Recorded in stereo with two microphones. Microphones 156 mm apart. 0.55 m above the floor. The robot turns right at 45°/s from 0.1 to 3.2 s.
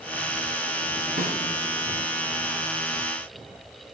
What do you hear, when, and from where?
1.2 s a snare drum: 70° right (ahead or behind), 3 m; by 1.4 s 75° right (ahead or behind), 3 m